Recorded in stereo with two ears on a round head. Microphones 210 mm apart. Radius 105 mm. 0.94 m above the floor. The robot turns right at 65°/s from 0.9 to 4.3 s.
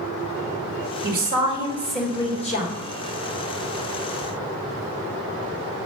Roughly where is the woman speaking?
Ahead right.